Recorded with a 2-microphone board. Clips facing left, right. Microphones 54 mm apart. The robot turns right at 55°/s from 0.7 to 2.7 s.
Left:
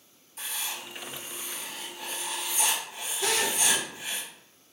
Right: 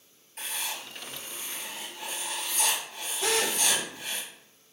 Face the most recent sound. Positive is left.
turn(degrees=-25)  # may be behind; listen again after turning